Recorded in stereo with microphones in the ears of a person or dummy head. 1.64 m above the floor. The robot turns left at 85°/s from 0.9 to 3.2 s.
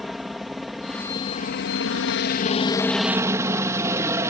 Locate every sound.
0.0 s a helicopter: 175° right; by 4.3 s 10° right